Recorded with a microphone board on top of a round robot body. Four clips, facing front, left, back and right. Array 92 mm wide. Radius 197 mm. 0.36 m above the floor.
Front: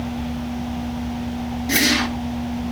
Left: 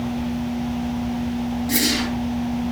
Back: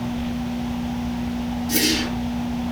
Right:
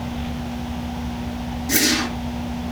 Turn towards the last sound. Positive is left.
turn(degrees=-10)